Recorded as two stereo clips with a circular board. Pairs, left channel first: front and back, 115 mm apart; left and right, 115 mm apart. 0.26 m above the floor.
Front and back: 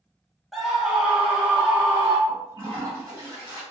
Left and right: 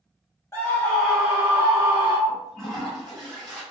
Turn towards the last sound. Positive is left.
turn(degrees=170)